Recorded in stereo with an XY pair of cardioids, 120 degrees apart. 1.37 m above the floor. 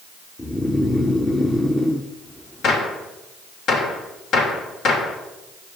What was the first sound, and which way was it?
Snoring, 15° left.